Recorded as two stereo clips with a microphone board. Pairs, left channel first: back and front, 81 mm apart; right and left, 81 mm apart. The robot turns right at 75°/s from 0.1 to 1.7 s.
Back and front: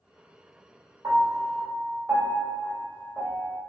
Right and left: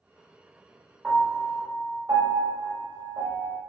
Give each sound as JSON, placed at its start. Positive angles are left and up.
{"t": 1.0, "sound": "a piano", "azimuth_deg": 20, "distance_m": 1.8}